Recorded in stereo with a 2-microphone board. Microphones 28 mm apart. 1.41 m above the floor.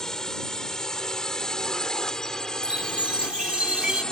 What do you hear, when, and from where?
0.0 s a drone: 20° left (ahead or behind); by 4.1 s 25° left (ahead or behind)
2.6 s a chime: 45° right (ahead or behind)